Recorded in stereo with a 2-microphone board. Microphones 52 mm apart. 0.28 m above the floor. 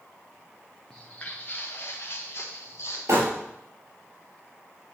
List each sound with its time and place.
0.9 s footsteps: 10° left (ahead or behind), 1.3 m; by 3.0 s 55° left (ahead or behind), 3.5 m
3.1 s crumpling: 65° right (ahead or behind), 3 m